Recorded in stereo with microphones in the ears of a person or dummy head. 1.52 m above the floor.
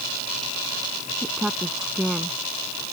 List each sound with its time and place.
1.2 s a woman speaking: centre (ahead or behind); by 2.9 s 5° left (ahead or behind)